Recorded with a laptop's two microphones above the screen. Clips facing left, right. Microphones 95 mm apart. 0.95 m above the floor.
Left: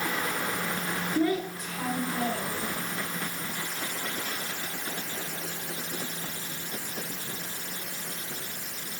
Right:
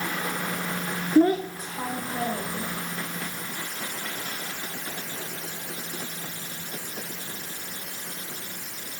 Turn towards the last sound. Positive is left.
turn(degrees=-20)  # may be behind; listen again after turning